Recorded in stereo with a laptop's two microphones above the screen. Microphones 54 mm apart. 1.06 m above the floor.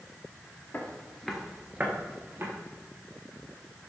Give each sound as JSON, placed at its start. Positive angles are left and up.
{"t": 0.7, "sound": "footsteps", "side_deg": 35, "distance_m": 1.2}